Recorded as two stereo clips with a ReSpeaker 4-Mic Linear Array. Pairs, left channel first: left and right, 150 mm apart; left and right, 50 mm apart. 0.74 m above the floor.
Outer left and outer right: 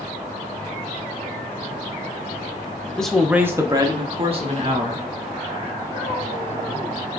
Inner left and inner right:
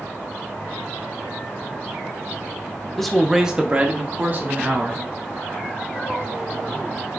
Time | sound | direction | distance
3.0 | a man speaking | 5° left (ahead or behind) | 0.8 m